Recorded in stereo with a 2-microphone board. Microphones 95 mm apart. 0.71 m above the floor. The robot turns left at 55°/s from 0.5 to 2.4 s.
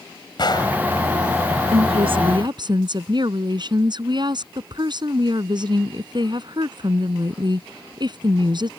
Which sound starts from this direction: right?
A woman speaking, at 1.7 s.